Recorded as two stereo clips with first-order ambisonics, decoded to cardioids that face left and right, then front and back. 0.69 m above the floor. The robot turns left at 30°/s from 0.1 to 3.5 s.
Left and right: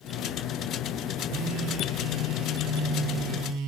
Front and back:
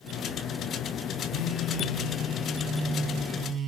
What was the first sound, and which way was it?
A phone buzzing, 45° right.